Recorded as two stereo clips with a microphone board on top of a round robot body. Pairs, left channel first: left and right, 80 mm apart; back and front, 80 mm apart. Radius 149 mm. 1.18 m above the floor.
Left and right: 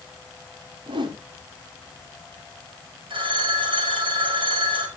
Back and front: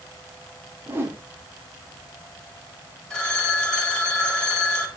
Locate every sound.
0.9 s a whoosh: 65° right, 2 m
3.1 s a phone ringing: 100° right, 3.5 m